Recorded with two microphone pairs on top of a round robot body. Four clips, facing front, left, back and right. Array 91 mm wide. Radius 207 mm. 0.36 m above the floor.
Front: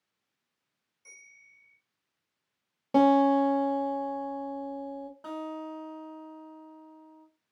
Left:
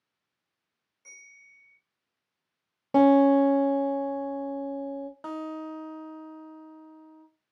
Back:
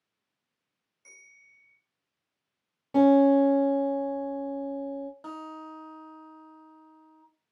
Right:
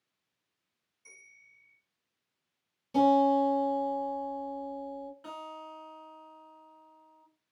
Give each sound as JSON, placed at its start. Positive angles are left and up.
{"t": 1.1, "sound": "a bell", "azimuth_deg": 120, "distance_m": 1.9}
{"t": 2.9, "sound": "a guitar", "azimuth_deg": 55, "distance_m": 0.6}
{"t": 5.2, "sound": "a guitar", "azimuth_deg": 95, "distance_m": 0.5}